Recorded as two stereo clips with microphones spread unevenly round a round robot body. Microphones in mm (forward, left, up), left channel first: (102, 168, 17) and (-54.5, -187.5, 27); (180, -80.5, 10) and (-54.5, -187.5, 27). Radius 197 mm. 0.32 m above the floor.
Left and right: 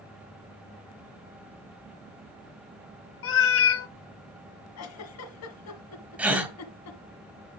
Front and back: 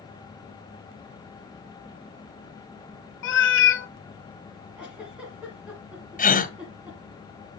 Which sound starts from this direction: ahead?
A cat meowing, at 3.2 s.